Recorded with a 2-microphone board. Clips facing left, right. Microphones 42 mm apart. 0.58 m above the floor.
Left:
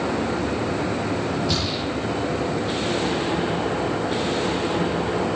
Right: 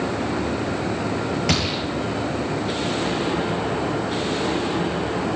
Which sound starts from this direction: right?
A gunshot, at 1.5 s.